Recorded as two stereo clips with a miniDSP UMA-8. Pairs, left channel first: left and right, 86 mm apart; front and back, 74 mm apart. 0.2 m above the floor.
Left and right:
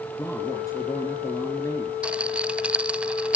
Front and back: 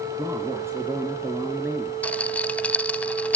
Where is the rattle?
40° right, 0.5 m.